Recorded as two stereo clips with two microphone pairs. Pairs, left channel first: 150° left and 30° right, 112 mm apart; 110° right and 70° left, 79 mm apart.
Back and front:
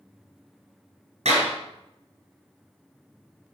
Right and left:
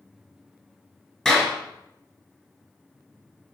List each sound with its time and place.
1.2 s a clap: 30° right, 4.5 m